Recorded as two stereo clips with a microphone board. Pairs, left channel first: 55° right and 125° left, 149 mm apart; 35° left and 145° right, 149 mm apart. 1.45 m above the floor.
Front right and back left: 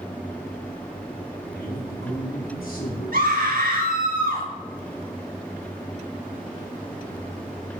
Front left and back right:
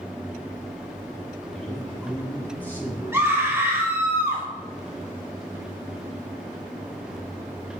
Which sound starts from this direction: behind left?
A scream, at 3.1 s.